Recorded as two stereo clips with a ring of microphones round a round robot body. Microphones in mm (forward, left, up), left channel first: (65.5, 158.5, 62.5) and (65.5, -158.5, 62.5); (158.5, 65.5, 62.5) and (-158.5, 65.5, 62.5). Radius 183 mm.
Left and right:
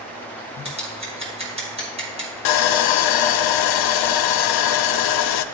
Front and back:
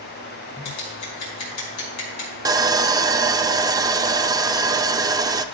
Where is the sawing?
100° left, 0.5 m.